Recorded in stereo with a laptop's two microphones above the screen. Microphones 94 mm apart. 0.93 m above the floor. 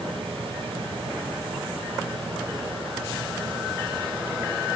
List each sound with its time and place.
0.0 s a fan: 70° right (ahead or behind), 10 m